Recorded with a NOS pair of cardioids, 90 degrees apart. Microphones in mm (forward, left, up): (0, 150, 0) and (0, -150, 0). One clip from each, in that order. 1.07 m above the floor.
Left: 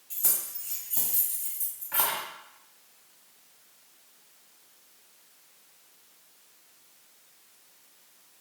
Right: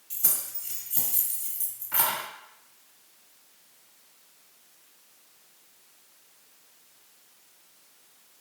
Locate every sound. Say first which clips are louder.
0.1 s keys jangling: even; 15° right, 1.2 m